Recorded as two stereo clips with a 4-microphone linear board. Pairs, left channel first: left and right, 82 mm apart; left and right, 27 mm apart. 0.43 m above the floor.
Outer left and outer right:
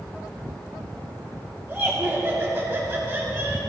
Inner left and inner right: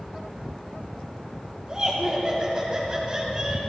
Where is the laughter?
20° right (ahead or behind), 2 m.